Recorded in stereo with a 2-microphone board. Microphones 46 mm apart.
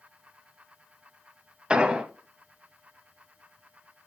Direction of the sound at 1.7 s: 20° right (ahead or behind).